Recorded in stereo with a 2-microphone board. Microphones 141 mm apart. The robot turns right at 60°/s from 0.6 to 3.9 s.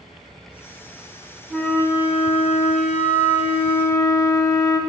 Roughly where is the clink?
I don't hear a clink.